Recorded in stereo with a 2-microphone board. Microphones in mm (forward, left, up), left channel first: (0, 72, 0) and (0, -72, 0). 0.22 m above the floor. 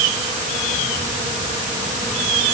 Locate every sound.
Only background noise.